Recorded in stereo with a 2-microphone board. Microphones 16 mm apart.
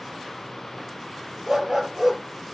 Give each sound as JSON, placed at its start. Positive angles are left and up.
{"t": 1.5, "sound": "a dog barking", "side_deg": -40, "distance_m": 2.5}